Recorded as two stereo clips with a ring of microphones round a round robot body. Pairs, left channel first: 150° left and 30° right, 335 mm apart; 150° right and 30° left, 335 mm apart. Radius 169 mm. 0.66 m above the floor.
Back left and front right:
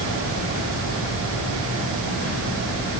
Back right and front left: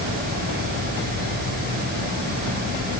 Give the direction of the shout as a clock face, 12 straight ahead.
No shout in this recording.